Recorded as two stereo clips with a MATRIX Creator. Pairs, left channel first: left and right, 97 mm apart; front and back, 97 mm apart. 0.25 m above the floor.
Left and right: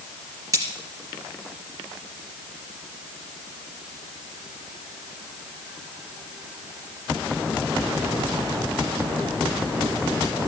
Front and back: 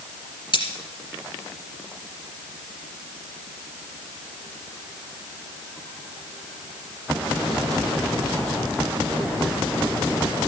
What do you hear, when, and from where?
0.5 s cutlery clinking: 35° right, 2.5 m